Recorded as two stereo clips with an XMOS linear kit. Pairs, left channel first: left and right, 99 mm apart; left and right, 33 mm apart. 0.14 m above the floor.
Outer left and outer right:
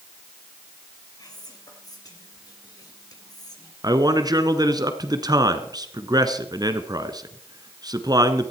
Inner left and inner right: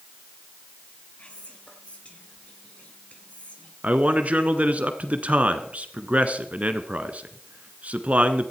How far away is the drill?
I don't hear a drill.